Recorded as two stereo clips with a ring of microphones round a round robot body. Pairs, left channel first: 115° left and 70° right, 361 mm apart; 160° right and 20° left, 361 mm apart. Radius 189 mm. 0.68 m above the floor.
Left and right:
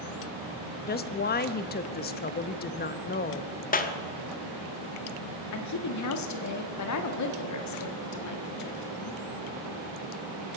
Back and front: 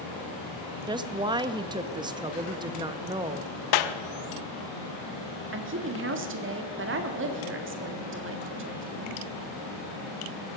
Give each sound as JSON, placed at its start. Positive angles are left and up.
{"t": 0.9, "sound": "a woman speaking", "azimuth_deg": 85, "distance_m": 0.7}
{"t": 3.7, "sound": "a clap", "azimuth_deg": 180, "distance_m": 0.9}
{"t": 5.5, "sound": "a woman speaking", "azimuth_deg": 75, "distance_m": 1.5}